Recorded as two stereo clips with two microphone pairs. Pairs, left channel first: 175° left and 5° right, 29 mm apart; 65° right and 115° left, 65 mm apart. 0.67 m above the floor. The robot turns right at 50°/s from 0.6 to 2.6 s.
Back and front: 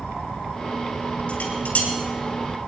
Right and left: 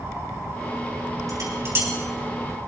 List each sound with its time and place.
1.3 s dishes clattering: 145° left, 3.5 m; by 1.9 s 175° left, 3.5 m